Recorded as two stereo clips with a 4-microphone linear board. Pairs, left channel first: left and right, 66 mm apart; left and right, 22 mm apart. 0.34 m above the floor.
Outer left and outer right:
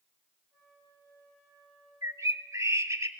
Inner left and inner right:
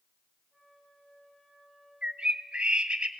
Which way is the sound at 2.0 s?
50° right (ahead or behind).